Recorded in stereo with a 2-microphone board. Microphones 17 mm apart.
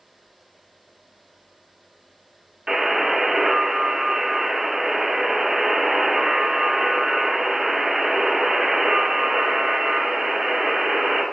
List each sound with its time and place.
2.7 s a buzzer: 50° right (ahead or behind), 0.9 m